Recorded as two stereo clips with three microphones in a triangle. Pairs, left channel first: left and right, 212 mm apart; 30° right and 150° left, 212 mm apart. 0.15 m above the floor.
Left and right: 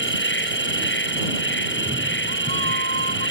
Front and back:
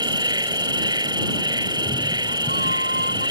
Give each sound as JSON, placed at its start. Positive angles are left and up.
{"t": 0.0, "sound": "an insect", "azimuth_deg": 80}
{"t": 1.7, "sound": "a cat meowing", "azimuth_deg": -70}